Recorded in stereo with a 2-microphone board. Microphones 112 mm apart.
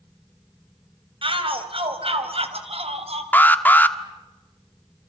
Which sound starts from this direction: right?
A shout, at 1.2 s.